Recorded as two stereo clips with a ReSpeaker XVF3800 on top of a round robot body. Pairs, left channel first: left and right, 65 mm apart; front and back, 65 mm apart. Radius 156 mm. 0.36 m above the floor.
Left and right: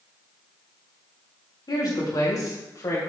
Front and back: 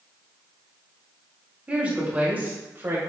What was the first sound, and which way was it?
A woman speaking, 105° left.